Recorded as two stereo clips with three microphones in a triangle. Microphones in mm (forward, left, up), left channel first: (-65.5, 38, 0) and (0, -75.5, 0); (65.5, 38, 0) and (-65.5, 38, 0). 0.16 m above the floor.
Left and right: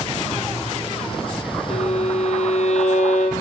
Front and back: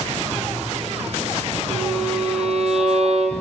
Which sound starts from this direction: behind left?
A violin, at 1.7 s.